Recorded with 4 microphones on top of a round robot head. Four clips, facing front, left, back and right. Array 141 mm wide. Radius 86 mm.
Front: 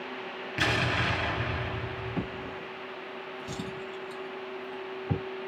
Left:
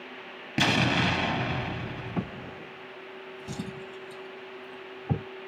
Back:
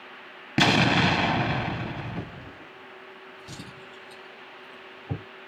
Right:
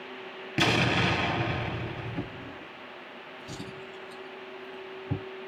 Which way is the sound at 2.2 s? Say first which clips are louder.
Left 2 dB, front 4 dB; 75° left.